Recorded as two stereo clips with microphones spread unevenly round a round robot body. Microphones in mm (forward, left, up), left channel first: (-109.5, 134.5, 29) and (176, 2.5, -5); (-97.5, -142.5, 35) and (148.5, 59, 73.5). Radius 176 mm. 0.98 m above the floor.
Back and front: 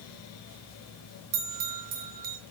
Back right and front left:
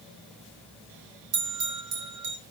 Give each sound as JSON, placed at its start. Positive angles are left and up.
{"t": 1.3, "sound": "a bell", "azimuth_deg": -5, "distance_m": 3.0}